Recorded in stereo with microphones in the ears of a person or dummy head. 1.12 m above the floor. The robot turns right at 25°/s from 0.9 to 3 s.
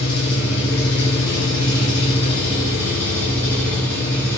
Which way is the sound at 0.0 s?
120° left.